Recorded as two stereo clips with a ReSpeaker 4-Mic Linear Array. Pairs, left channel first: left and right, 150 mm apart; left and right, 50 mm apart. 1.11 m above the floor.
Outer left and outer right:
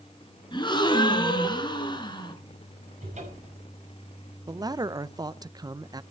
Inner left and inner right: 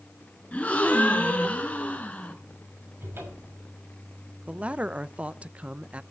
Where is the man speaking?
25° right (ahead or behind), 0.5 m.